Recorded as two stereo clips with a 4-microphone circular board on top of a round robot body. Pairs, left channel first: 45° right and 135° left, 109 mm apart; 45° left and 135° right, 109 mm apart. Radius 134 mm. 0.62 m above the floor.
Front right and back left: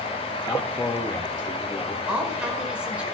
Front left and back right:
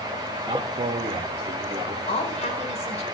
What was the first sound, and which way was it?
A man speaking, 110° right.